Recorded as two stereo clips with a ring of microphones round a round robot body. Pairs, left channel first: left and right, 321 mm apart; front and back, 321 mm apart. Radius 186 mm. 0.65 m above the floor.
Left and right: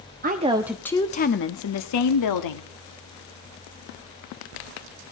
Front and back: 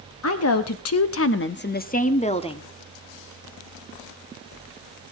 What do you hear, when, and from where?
0.2 s a woman speaking: 35° right, 0.9 m; by 2.7 s 75° left, 1.5 m